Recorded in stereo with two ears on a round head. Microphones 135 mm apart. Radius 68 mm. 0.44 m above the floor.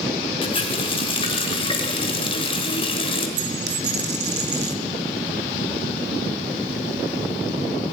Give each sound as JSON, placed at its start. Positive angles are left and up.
{"t": 0.4, "sound": "a running tap", "side_deg": 40, "distance_m": 1.3}
{"t": 3.4, "sound": "a dropped coin", "side_deg": -85, "distance_m": 1.2}